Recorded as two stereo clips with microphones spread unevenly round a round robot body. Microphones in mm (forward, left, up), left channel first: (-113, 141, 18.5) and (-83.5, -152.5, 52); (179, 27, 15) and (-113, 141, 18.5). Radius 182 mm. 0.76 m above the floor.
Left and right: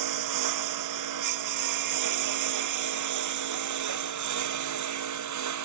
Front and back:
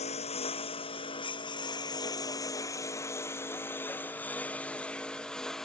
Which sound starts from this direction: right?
A lawn mower, at 0.0 s.